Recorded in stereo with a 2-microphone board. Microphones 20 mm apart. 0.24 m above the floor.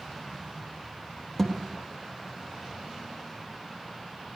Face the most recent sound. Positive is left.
turn(degrees=10)  # may be behind; listen again after turning